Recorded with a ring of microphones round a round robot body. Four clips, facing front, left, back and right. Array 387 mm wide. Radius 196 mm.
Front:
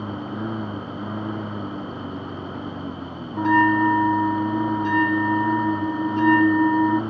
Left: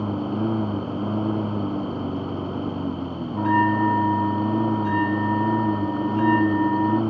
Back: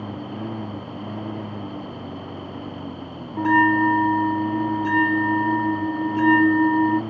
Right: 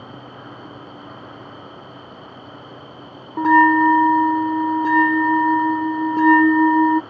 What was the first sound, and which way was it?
A lawn mower, 80° left.